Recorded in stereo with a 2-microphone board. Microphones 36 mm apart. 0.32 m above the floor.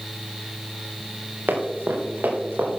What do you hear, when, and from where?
1.5 s running footsteps: 80° right, 4 m; by 2.8 s 65° right (ahead or behind), 5.5 m